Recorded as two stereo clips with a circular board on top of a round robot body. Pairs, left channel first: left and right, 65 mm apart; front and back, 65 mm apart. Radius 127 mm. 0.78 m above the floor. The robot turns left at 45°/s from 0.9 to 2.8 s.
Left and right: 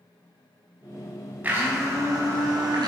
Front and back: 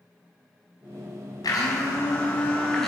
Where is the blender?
20° right, 3.5 m; by 2.9 s 85° right, 3.5 m.